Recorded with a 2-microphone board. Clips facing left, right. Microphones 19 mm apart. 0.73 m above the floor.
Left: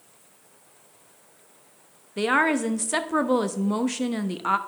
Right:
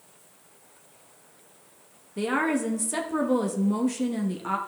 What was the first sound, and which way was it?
A woman speaking, 30° left (ahead or behind).